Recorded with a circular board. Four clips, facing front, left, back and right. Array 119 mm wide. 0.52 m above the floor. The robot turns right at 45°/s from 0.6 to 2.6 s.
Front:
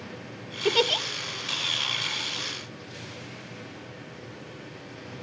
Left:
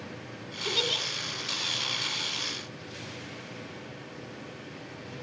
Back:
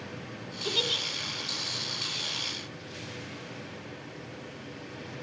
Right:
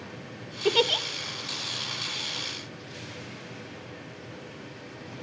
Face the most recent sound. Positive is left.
turn(degrees=40)